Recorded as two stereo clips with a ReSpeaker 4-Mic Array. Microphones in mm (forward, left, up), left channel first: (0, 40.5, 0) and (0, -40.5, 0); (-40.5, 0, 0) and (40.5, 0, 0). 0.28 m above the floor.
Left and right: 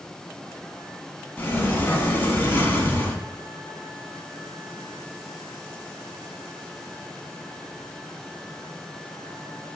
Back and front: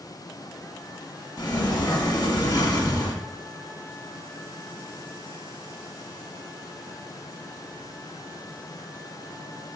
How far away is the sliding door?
About 0.9 m.